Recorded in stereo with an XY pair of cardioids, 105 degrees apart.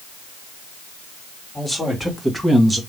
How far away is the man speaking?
About 2 m.